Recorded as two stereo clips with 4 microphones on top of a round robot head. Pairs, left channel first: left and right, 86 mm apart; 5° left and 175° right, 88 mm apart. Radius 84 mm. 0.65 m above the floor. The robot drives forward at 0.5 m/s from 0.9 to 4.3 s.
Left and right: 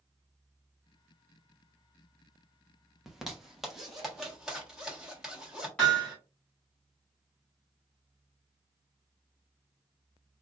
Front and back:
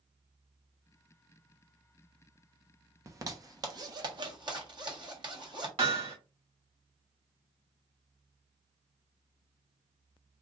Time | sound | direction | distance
3.1 | a zipper | 175° right | 1.1 m
5.8 | hammering | 170° left | 3 m